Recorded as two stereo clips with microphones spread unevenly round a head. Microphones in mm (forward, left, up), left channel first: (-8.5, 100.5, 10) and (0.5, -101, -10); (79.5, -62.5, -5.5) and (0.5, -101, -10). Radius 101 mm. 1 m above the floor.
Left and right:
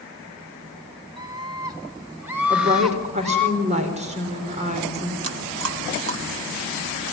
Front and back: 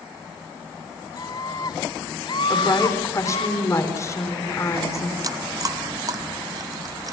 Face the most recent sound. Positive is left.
turn(degrees=-105)